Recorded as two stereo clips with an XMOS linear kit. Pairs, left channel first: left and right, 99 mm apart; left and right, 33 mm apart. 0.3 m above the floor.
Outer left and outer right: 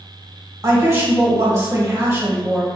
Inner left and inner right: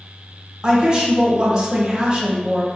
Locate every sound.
0.6 s a woman speaking: 30° right (ahead or behind), 1.5 m